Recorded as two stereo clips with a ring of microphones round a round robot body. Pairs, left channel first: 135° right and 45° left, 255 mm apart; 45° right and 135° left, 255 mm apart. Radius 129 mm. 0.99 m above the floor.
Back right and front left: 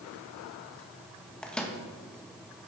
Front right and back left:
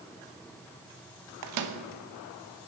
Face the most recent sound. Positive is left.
turn(degrees=140)